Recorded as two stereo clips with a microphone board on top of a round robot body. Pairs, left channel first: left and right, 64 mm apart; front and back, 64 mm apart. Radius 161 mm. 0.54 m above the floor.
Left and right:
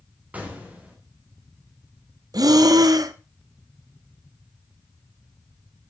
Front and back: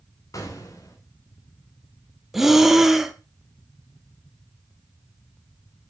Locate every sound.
0.3 s an explosion: 25° right, 2.5 m
2.3 s breathing: 95° right, 1.0 m